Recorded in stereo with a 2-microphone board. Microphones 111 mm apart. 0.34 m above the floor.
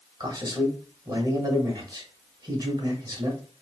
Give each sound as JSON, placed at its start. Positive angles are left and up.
{"t": 0.2, "sound": "a man speaking", "side_deg": -35, "distance_m": 1.2}